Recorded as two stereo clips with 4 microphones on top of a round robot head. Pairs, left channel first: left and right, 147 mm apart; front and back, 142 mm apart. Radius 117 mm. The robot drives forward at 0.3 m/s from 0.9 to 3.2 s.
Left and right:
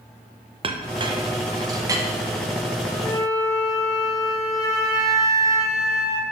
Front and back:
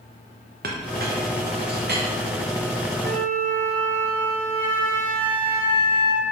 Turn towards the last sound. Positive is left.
turn(degrees=155)